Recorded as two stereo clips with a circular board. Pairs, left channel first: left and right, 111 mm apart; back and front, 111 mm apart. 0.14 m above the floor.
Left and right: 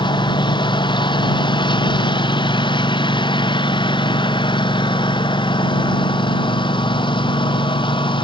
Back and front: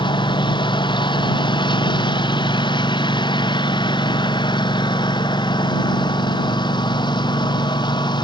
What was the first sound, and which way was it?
A lawn mower, 135° left.